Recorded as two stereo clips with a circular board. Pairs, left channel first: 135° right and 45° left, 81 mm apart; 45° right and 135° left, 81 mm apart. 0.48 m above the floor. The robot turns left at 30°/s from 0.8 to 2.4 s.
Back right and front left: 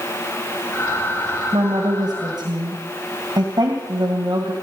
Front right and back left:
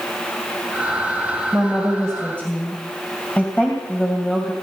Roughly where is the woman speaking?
Ahead left.